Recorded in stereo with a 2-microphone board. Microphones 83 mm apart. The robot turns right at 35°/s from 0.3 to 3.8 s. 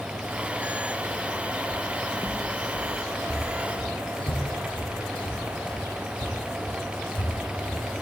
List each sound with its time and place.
1.7 s footsteps: 5° left (ahead or behind), 2.5 m; by 7.8 s 90° left, 8 m